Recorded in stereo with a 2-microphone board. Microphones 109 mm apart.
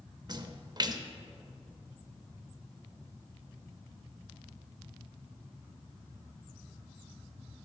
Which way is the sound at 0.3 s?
40° right (ahead or behind).